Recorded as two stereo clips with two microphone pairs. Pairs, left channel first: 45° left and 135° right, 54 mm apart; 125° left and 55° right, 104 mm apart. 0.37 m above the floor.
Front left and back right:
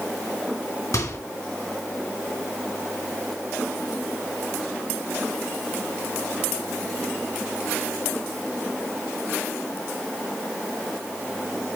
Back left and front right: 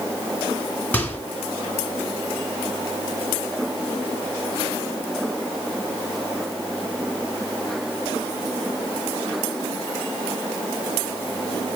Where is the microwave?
50° left, 3 m.